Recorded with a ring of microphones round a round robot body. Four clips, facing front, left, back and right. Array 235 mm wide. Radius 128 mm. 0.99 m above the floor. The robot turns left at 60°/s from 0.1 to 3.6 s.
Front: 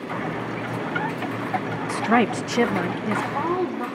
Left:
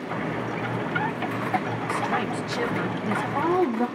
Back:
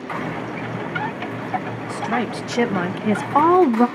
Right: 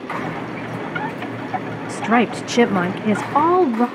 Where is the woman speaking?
50° right, 0.8 m; by 3.9 s 150° right, 0.8 m.